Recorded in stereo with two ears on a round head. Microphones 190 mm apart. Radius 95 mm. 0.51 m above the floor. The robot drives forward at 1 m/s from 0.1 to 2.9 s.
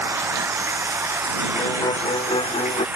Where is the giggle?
No giggle in this recording.